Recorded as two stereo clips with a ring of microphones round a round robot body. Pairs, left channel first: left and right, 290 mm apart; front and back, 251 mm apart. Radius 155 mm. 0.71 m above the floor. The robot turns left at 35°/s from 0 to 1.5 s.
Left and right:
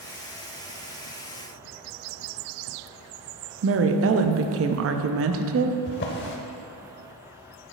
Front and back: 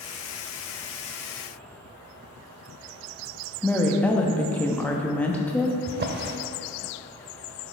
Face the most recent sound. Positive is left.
turn(degrees=140)